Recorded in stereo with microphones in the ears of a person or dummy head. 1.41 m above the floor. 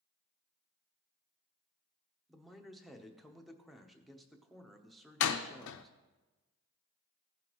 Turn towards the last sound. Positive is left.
turn(degrees=75)  # may be behind; listen again after turning